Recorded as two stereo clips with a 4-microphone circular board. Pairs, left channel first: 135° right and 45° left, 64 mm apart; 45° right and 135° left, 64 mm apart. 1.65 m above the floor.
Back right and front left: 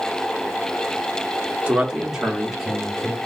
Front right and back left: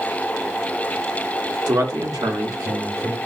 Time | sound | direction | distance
1.7 | a man speaking | 115° left | 1.3 m